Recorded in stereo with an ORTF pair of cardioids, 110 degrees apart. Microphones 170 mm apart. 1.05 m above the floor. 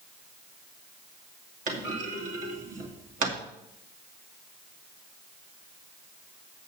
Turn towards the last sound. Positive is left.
turn(degrees=-50)